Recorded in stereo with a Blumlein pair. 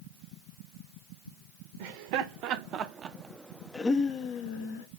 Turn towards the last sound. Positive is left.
turn(degrees=50)